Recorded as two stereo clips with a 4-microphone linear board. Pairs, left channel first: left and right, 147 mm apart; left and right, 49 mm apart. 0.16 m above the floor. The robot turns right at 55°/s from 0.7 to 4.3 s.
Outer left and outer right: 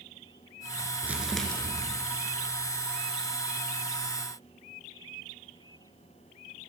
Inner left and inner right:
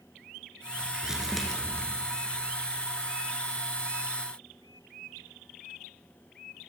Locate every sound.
1.0 s crumpling: 15° right, 1.9 m; by 1.9 s 30° left, 1.9 m